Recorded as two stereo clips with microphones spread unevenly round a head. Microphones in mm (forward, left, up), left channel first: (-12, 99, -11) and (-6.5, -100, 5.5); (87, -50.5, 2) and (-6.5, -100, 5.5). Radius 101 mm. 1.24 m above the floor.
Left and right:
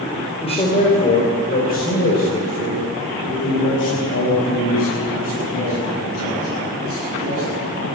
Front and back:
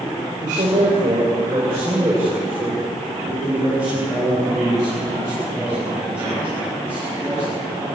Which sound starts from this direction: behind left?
A man speaking, at 0.4 s.